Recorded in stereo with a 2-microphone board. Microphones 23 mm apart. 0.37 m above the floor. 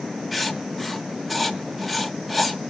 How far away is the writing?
About 1.1 m.